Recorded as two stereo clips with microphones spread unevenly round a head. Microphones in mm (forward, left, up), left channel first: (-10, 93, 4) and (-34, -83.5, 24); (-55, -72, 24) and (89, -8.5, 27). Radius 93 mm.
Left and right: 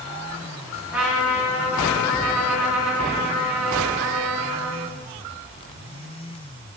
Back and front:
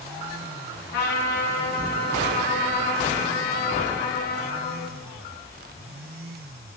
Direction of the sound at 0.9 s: 175° left.